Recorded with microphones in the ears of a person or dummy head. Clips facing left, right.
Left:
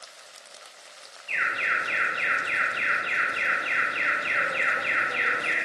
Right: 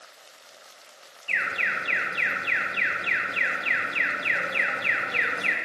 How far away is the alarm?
About 1.3 m.